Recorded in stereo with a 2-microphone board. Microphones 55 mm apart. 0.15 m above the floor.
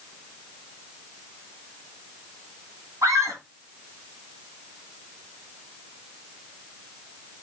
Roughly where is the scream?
Right.